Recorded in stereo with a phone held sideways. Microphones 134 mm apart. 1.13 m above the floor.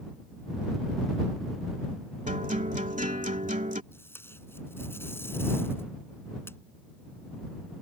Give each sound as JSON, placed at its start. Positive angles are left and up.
{"t": 2.3, "sound": "a guitar", "side_deg": -70}
{"t": 3.9, "sound": "tape being pulled", "side_deg": 15}